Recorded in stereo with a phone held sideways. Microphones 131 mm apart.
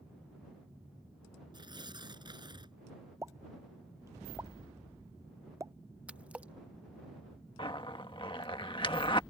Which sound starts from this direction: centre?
A splash, at 6.1 s.